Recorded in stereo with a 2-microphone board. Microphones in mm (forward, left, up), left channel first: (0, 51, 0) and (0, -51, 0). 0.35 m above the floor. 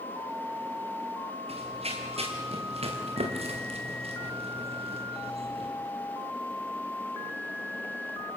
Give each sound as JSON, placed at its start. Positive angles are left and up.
{"t": 1.5, "sound": "running footsteps", "side_deg": -80, "distance_m": 5.5}